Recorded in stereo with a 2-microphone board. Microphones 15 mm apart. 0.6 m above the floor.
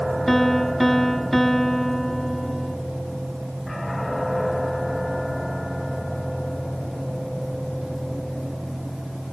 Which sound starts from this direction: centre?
A piano, at 0.3 s.